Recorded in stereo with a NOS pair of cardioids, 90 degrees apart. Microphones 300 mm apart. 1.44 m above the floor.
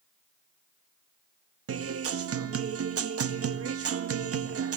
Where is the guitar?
50° right, 1.7 m.